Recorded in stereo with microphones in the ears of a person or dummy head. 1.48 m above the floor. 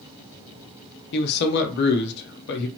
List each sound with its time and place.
1.1 s a man speaking: 60° left (ahead or behind), 0.8 m